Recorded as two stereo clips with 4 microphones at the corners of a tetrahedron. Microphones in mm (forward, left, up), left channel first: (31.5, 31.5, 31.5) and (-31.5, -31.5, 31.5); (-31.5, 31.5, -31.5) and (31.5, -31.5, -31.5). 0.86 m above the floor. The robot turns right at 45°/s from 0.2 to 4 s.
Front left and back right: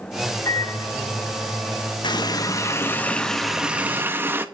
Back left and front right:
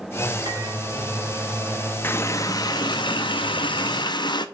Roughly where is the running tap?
Left.